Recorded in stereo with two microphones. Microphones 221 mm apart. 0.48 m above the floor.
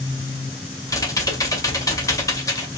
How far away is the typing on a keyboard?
About 2 m.